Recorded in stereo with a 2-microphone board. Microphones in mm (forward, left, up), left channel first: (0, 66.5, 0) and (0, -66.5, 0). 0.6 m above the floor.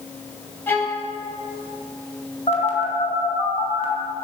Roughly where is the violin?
Centre.